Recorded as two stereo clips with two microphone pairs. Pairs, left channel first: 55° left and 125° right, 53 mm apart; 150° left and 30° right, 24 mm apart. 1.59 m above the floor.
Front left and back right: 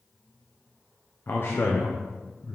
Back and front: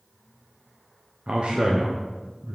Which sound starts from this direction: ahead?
A man speaking, at 1.3 s.